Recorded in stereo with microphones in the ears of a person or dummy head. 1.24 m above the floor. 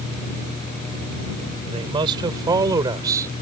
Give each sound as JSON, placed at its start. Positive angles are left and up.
{"t": 1.7, "sound": "a man speaking", "side_deg": -25}